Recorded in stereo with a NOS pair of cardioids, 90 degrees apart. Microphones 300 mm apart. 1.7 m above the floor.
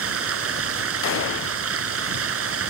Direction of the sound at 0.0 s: 50° right.